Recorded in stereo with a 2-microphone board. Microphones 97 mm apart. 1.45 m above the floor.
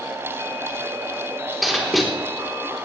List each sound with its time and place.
1.6 s writing: centre (ahead or behind), 3.5 m